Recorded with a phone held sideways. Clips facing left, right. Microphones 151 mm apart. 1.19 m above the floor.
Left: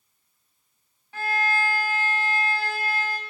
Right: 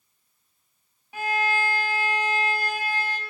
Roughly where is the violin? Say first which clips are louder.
Right 1 dB; centre.